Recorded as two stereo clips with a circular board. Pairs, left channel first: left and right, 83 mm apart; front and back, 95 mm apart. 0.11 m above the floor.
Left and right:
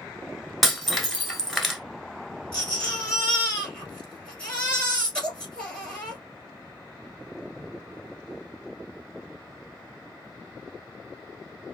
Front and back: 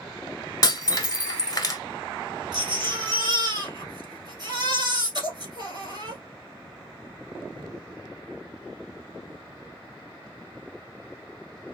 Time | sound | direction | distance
0.6 | breaking glass | 5° left | 0.9 m
2.5 | a baby crying | 165° left | 1.8 m